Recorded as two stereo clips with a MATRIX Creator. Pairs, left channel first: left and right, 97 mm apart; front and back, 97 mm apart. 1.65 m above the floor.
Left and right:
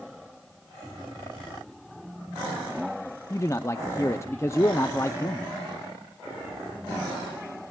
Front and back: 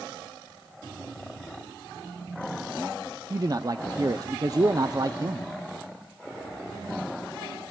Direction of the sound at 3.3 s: 140° left.